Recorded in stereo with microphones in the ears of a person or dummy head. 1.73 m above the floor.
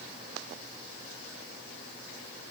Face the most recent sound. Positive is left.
No sound to turn to.